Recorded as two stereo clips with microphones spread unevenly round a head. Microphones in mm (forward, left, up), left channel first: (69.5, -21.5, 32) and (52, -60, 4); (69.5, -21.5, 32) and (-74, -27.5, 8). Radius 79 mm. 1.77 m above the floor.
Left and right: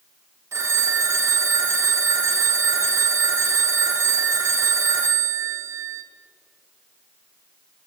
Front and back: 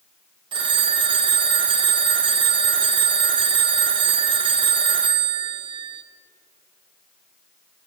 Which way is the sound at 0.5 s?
160° right.